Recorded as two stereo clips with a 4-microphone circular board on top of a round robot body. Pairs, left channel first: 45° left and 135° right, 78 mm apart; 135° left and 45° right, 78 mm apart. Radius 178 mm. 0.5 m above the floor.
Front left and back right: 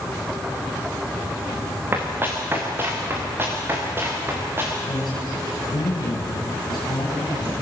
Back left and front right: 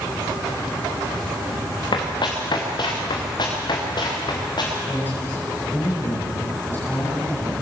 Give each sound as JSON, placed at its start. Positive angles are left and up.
{"t": 1.9, "sound": "running footsteps", "azimuth_deg": 160, "distance_m": 3.0}
{"t": 4.9, "sound": "a man speaking", "azimuth_deg": 75, "distance_m": 5.5}